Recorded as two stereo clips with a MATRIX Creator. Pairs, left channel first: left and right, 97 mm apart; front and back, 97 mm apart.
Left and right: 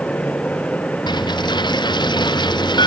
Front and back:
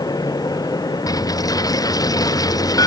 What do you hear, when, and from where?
1.1 s a dropped coin: 50° left